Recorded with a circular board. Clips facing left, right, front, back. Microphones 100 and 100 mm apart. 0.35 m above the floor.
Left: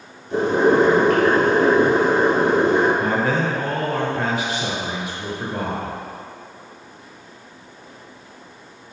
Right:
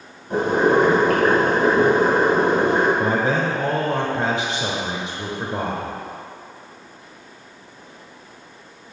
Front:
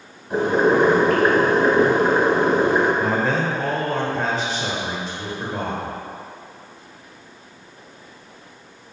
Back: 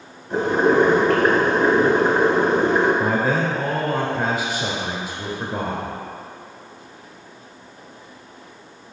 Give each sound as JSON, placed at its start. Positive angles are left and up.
{"t": 0.3, "sound": "boiling", "azimuth_deg": -75, "distance_m": 2.0}
{"t": 3.0, "sound": "a man speaking", "azimuth_deg": -115, "distance_m": 0.9}